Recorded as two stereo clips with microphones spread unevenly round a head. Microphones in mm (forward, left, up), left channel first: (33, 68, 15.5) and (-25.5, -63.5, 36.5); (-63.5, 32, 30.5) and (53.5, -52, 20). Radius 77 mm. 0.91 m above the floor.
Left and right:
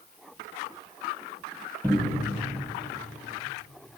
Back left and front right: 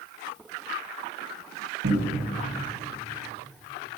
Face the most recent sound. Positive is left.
turn(degrees=-15)